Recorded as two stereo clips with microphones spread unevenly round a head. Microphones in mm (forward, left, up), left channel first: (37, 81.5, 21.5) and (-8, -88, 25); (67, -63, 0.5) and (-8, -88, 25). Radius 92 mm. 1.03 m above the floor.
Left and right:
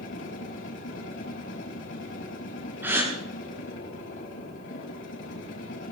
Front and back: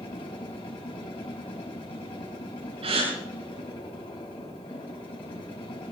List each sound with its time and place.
0.0 s a machine running: 60° left, 5 m
2.8 s a gasp: 175° left, 9 m